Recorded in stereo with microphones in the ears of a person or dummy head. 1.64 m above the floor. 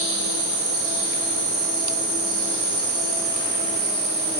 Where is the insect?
30° right (ahead or behind), 3 m.